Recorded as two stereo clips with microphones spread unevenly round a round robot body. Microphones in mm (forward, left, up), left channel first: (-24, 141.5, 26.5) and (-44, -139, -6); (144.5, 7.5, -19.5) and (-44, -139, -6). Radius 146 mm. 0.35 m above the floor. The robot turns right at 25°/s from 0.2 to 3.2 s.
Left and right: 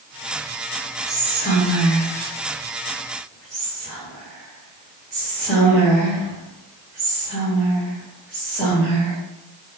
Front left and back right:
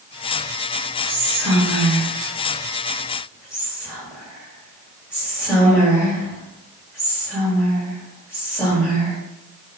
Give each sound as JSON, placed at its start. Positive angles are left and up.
{"t": 1.1, "sound": "whispering", "azimuth_deg": -70, "distance_m": 1.3}